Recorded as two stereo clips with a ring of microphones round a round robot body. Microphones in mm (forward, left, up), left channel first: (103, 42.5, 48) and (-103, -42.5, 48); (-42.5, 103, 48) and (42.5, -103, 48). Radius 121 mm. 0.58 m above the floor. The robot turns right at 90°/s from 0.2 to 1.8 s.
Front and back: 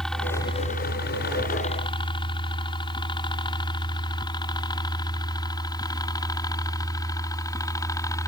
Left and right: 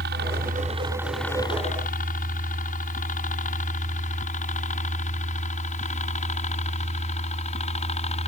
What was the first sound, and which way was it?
A helicopter, 65° right.